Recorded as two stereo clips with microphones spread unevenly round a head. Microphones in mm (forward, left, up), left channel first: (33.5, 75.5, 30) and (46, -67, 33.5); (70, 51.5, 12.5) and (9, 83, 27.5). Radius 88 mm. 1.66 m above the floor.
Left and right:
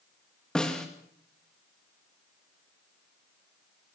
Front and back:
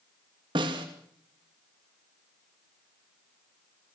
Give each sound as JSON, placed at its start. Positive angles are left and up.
{"t": 0.6, "sound": "a snare drum", "azimuth_deg": 180, "distance_m": 2.5}